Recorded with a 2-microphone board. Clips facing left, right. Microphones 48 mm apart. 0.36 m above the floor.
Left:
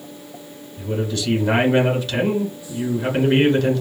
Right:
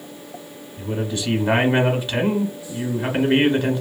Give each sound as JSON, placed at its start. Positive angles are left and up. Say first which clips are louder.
{"t": 0.8, "sound": "a man speaking", "louder": "left 1 dB", "side_deg": -15, "distance_m": 1.0}